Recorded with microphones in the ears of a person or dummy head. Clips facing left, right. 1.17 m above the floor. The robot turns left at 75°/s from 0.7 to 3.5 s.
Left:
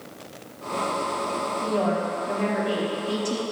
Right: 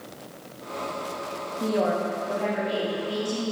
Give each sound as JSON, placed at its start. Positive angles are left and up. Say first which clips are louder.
{"t": 1.6, "sound": "a woman speaking", "louder": "right 1 dB", "azimuth_deg": -150, "distance_m": 2.0}